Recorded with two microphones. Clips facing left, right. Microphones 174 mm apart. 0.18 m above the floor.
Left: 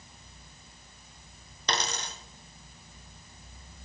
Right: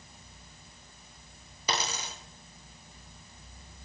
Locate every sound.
1.7 s a dropped coin: 10° right (ahead or behind), 1.3 m